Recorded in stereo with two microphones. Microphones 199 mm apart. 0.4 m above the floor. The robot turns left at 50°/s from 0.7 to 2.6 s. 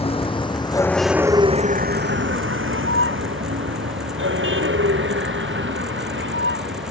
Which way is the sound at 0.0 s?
30° left (ahead or behind).